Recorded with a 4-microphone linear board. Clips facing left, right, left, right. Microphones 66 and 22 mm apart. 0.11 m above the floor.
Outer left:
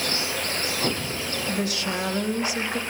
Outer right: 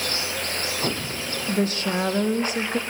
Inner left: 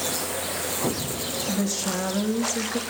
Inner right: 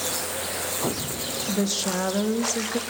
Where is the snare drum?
No snare drum in this recording.